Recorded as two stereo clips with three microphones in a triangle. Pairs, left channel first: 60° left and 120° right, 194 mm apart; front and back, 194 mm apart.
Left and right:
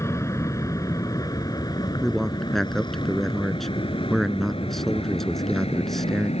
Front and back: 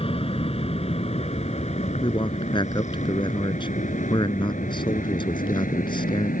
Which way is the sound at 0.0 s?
Straight ahead.